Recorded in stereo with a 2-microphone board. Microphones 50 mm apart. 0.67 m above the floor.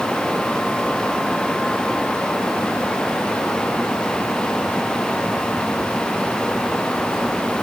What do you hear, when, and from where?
Only background noise.